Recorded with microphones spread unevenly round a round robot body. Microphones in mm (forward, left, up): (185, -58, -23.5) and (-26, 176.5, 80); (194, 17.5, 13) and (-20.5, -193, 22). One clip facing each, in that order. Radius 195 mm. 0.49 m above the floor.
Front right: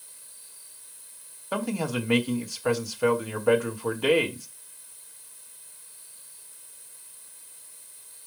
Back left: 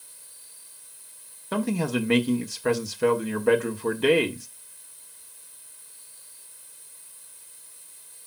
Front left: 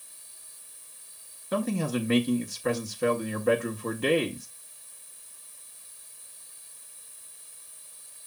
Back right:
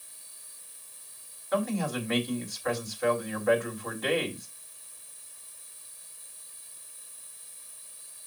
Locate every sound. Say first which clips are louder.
1.5 s a man speaking: back left 3 dB, front left 2 dB; 60° left, 1.3 m